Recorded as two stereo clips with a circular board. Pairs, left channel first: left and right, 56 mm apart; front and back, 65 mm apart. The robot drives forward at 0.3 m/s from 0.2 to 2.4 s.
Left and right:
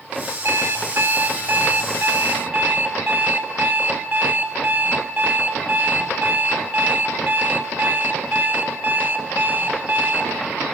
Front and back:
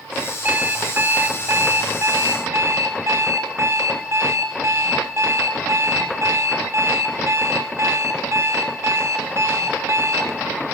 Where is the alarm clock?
120° right, 1.2 m; by 10.4 s 140° right, 1.6 m.